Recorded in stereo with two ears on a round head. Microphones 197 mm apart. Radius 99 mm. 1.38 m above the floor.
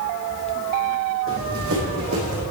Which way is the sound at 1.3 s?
65° right (ahead or behind).